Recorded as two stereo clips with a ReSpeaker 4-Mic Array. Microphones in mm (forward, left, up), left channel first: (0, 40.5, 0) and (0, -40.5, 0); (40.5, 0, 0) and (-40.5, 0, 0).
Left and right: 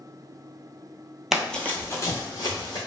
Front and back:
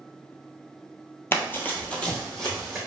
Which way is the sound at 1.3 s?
10° right.